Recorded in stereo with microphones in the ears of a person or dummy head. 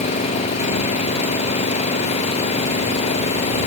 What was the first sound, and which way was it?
An engine running, 35° left (ahead or behind).